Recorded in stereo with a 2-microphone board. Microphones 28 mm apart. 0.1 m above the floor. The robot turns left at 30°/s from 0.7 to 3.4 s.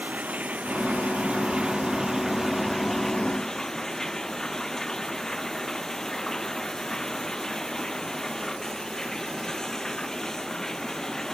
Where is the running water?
120° right; by 11.3 s 160° left.